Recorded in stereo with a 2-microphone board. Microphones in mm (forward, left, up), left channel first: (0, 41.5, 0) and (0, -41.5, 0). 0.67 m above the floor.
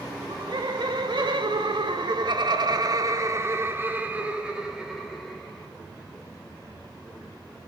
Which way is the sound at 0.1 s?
60° right (ahead or behind).